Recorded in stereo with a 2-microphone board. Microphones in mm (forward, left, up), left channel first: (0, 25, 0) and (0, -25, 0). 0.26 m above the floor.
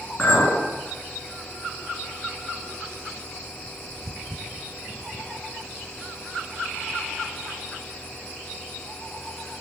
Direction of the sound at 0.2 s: 20° left (ahead or behind).